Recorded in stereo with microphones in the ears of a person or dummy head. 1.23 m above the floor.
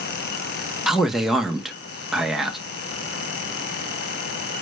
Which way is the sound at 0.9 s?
5° right (ahead or behind).